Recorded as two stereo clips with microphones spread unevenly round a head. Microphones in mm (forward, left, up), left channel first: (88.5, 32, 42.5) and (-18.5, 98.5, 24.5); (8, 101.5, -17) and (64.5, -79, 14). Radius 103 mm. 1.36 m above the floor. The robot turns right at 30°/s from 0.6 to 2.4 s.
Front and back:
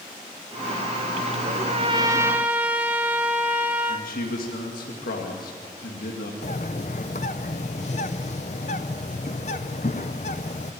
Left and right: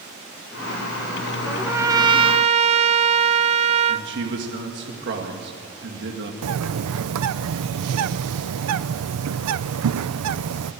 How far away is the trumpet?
About 0.6 m.